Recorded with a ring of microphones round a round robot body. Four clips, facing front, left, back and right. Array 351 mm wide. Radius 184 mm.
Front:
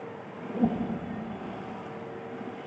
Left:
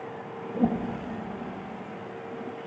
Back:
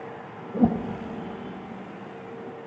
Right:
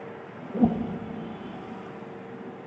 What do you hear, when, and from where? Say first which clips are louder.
0.5 s a whoosh: right 3 dB, back 4 dB; 145° right, 0.7 m